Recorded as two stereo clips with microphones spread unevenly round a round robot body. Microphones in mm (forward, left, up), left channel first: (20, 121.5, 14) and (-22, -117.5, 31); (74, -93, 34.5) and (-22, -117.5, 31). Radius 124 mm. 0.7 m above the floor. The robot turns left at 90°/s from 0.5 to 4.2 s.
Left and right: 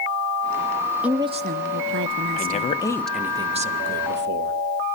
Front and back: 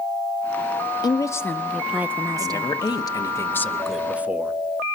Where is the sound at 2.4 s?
65° left, 1.2 m; by 4.5 s 100° right, 1.2 m.